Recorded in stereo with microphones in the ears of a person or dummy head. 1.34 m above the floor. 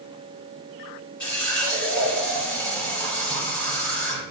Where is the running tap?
5° left (ahead or behind), 2.5 m.